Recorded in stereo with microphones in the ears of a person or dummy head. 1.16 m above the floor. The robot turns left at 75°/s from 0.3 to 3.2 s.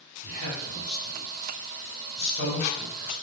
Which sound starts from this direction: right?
A man speaking, at 0.2 s.